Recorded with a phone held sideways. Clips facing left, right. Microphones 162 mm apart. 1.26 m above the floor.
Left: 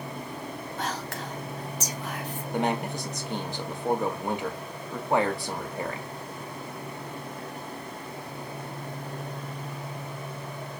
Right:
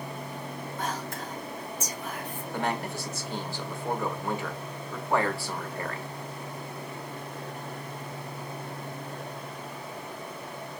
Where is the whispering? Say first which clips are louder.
Even; 75° left (ahead or behind), 1.0 m.